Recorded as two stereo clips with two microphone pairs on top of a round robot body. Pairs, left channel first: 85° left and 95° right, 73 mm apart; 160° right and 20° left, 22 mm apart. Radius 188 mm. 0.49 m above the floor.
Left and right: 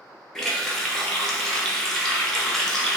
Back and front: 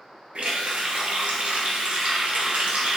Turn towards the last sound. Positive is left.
turn(degrees=5)